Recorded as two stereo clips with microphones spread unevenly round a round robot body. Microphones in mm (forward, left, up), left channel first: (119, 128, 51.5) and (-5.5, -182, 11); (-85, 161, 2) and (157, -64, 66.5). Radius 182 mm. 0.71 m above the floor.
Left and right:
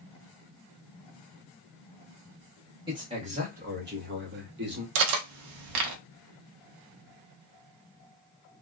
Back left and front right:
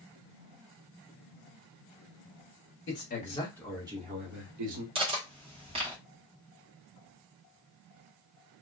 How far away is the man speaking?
About 1.3 m.